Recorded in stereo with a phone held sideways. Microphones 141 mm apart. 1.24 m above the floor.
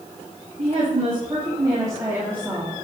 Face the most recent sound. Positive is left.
turn(degrees=-5)  # may be behind; listen again after turning